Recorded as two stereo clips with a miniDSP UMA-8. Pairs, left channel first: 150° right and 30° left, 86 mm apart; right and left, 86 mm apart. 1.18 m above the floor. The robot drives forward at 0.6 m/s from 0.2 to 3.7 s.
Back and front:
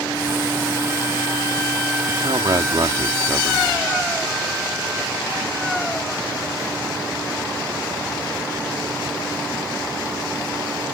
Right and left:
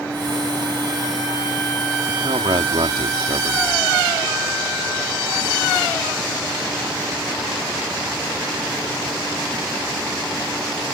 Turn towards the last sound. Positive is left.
turn(degrees=90)